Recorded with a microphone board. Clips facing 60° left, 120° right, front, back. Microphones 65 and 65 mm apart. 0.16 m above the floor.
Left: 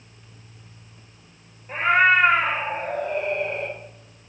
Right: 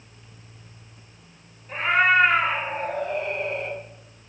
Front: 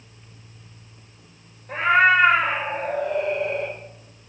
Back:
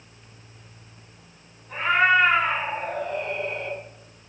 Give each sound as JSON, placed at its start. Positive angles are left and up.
{"t": 1.7, "sound": "a cat meowing", "azimuth_deg": 5, "distance_m": 0.8}